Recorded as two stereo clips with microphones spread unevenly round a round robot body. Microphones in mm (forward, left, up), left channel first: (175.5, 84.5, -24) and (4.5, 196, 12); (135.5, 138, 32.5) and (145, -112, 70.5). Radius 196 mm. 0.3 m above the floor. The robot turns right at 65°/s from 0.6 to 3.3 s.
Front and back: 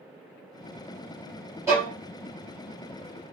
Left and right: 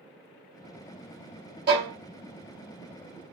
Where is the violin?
130° right, 1.8 m; by 1.9 s 110° right, 1.8 m.